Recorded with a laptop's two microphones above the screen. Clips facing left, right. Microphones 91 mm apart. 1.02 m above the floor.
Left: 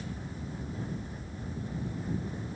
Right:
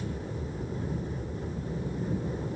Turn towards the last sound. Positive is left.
turn(degrees=-65)  # may be behind; listen again after turning